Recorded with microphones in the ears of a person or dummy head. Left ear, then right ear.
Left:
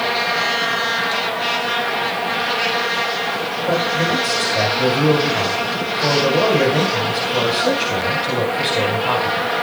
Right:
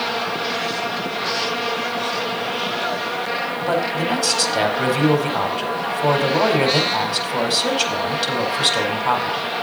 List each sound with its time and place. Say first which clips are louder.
3.7 s a man speaking: left 3 dB; 55° right (ahead or behind), 4.5 m